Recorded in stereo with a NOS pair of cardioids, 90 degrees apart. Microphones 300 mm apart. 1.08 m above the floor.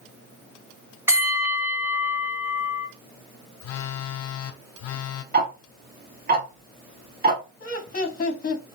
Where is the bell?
10° right, 1.4 m.